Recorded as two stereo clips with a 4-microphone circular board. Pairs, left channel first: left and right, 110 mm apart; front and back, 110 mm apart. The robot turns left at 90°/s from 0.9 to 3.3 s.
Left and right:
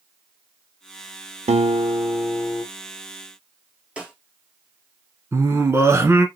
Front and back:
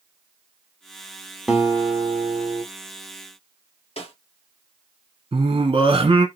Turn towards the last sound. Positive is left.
turn(degrees=-155)